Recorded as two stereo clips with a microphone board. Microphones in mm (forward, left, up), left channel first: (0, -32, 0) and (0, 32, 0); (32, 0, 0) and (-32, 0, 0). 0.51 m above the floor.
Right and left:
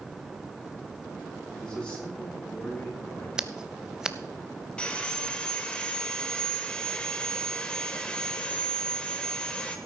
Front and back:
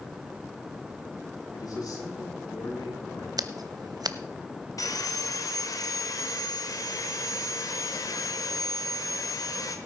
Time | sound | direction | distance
1.5 | a man speaking | 15° right | 6.5 m
3.4 | scissors | 170° left | 0.7 m
4.8 | sawing | 15° right | 1.3 m